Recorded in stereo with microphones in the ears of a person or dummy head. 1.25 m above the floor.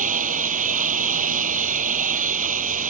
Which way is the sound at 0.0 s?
40° right (ahead or behind).